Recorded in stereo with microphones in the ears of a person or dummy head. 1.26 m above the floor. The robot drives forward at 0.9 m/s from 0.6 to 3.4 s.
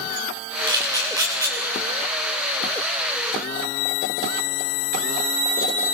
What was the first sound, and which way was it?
A camera shutter, 25° right (ahead or behind).